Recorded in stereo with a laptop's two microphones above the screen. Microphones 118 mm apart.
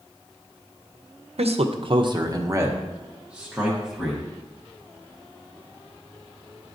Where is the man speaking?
70° right (ahead or behind), 0.6 m; by 4.2 s centre (ahead or behind), 1.4 m.